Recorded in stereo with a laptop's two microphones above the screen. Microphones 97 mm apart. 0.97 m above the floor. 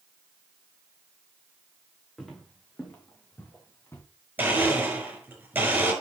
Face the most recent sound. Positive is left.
turn(degrees=-20)  # may be behind; listen again after turning